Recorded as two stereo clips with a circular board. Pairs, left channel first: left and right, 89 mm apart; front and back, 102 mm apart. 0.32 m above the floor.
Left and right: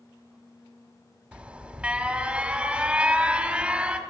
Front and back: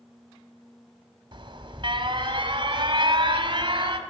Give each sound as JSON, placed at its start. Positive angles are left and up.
{"t": 1.3, "sound": "an alarm", "azimuth_deg": -165, "distance_m": 2.0}